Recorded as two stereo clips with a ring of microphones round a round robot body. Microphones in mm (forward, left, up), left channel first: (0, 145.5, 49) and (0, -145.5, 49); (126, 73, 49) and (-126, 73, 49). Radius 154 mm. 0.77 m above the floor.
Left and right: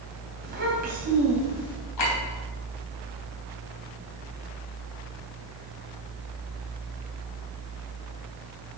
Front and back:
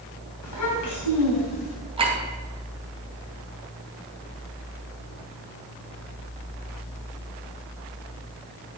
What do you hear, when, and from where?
0.4 s a child speaking: 35° right, 3.5 m; by 1.8 s 15° right, 4 m
2.0 s a clink: 110° left, 3 m